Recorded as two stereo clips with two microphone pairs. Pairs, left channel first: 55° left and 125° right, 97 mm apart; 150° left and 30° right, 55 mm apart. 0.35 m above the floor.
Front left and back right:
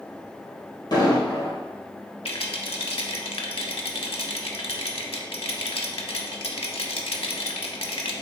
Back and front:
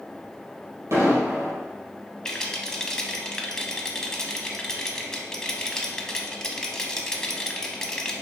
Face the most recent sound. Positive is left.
turn(degrees=75)